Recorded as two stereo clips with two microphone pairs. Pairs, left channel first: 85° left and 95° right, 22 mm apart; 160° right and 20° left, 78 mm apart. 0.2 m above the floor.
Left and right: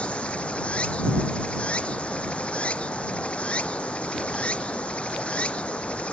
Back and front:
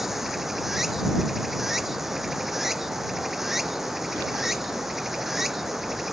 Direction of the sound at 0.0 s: 110° left.